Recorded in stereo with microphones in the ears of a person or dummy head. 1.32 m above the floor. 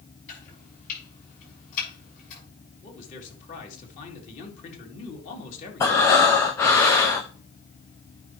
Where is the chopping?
45° left (ahead or behind), 6.5 m.